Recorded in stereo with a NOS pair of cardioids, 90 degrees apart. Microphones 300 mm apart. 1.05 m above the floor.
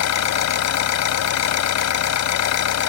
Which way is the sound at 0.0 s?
65° left.